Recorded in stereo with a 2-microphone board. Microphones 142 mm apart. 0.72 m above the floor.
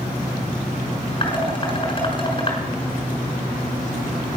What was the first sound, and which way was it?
Dishes clattering, 35° left (ahead or behind).